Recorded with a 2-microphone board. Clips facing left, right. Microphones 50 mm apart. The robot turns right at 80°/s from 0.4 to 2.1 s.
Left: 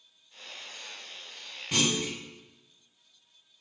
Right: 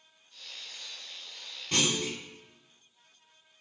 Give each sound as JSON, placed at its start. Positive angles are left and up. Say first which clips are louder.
{"t": 1.7, "sound": "a clunk", "louder": "left 1 dB", "azimuth_deg": 10, "distance_m": 1.7}